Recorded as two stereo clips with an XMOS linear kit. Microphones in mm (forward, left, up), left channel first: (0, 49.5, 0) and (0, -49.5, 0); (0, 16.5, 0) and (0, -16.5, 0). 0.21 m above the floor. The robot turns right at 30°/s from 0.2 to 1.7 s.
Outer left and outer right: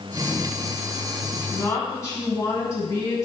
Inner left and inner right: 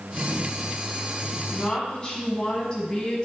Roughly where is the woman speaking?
Left.